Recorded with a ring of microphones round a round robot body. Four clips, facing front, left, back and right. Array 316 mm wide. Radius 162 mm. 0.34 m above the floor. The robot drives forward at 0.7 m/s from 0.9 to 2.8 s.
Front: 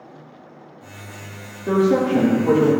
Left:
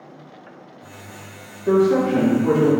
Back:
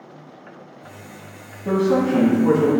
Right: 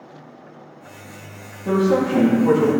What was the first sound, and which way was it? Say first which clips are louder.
A man speaking: left 2 dB, front 1 dB; 150° right.